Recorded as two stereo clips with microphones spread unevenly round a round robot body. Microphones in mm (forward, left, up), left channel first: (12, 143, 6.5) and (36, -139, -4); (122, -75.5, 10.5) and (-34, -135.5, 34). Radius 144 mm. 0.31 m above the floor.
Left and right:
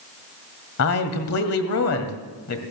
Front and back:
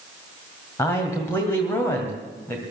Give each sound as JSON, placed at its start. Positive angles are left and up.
{"t": 0.8, "sound": "a man speaking", "azimuth_deg": 90, "distance_m": 1.9}